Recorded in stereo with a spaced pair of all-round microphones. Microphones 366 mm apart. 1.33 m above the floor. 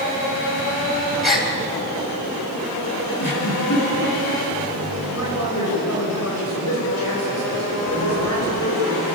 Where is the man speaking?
45° left (ahead or behind), 7.5 m.